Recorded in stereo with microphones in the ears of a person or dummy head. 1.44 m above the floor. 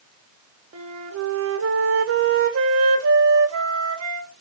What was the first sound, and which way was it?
A flute, 75° right (ahead or behind).